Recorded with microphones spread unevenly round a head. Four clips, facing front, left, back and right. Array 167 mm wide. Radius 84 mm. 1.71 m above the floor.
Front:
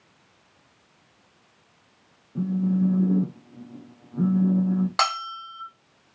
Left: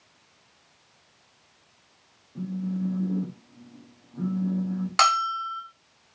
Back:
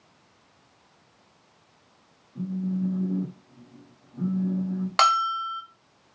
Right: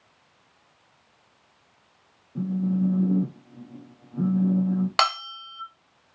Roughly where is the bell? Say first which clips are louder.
Left 3 dB, back 5 dB; behind right.